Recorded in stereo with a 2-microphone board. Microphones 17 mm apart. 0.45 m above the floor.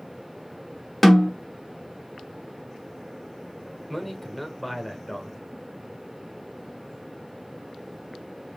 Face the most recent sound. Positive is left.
turn(degrees=10)  # may be behind; listen again after turning